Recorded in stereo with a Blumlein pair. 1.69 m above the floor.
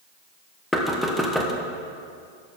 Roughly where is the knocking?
Ahead.